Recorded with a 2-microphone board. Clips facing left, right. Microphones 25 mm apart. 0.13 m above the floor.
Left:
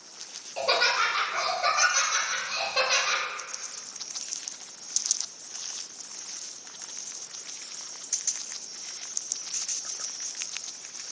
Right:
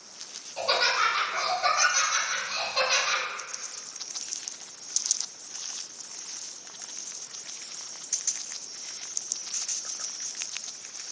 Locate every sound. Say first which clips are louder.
0.6 s laughter: even; 30° left (ahead or behind), 1.8 m